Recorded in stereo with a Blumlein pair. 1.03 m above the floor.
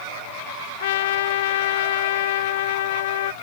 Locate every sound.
0.8 s a trumpet: 55° left